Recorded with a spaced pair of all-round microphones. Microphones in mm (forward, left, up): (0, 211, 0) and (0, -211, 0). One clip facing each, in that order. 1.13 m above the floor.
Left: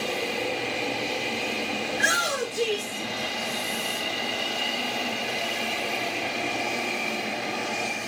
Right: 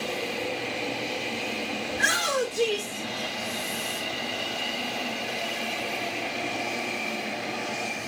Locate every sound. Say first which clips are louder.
1.9 s a shout: right 1 dB; 15° right (ahead or behind), 2.5 m